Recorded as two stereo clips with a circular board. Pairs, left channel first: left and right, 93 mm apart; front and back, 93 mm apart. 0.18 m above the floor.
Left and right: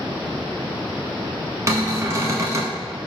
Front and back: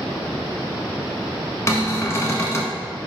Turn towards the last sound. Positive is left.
turn(degrees=-45)